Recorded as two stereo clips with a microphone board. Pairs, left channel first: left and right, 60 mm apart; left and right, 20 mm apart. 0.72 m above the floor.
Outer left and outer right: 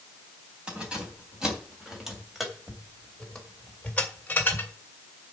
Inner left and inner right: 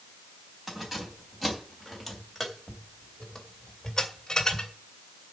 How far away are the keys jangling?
About 3.5 m.